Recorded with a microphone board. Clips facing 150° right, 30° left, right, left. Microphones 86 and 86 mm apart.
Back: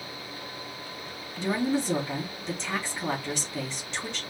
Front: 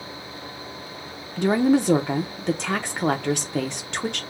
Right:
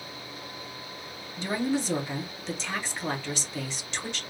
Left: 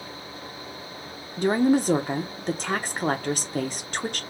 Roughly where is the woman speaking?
Ahead left.